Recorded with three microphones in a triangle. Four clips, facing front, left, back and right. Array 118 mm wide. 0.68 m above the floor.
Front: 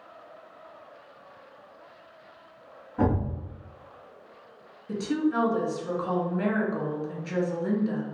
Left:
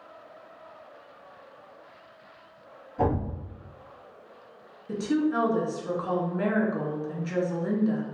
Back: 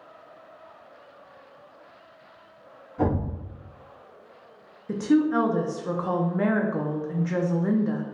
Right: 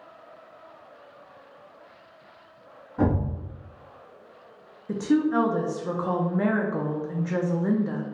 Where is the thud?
55° right, 1.8 m.